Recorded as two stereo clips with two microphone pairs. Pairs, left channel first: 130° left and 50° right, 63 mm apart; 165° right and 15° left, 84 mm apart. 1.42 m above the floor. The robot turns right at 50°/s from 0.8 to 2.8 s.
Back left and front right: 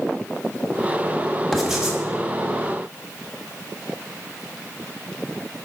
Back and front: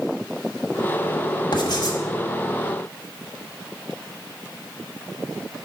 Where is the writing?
150° right, 1.3 m; by 2.0 s 125° right, 1.3 m.